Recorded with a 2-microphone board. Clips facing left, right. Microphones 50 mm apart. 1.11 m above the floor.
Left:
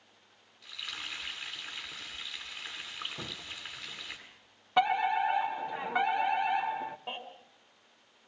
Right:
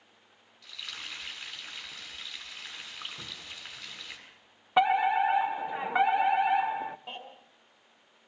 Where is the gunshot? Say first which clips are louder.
Left 2 dB; 45° left (ahead or behind), 0.8 m.